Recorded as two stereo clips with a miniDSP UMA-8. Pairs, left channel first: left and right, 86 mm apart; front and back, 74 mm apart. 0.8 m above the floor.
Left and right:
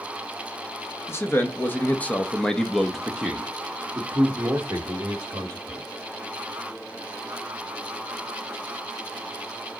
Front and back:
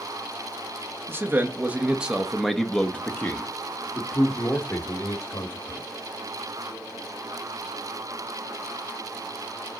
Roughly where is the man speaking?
Behind left.